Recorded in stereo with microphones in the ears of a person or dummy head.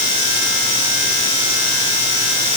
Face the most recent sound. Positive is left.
No sound to turn to.